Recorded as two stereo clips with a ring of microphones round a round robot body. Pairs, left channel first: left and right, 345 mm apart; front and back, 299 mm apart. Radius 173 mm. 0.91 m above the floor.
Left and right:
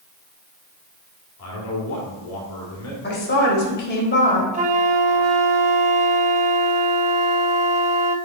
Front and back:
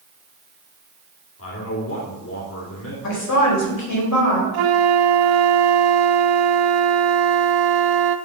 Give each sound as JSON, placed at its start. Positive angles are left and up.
{"t": 1.4, "sound": "a man speaking", "azimuth_deg": 45, "distance_m": 3.0}
{"t": 3.0, "sound": "a woman speaking", "azimuth_deg": 30, "distance_m": 4.0}
{"t": 4.5, "sound": "a flute", "azimuth_deg": -160, "distance_m": 0.7}